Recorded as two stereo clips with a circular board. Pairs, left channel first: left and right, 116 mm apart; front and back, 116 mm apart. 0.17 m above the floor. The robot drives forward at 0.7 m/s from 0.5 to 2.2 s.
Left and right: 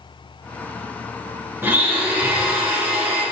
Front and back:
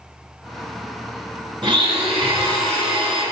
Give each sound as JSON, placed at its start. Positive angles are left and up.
{"t": 1.6, "sound": "a blender", "azimuth_deg": -160, "distance_m": 2.5}